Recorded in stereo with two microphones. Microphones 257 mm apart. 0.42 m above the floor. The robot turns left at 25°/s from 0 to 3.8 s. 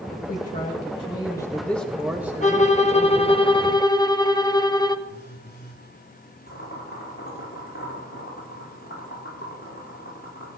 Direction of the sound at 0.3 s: 40° left.